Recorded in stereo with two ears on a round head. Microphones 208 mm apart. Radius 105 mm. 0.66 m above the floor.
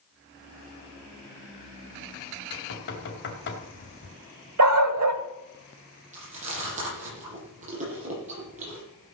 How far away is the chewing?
About 10 m.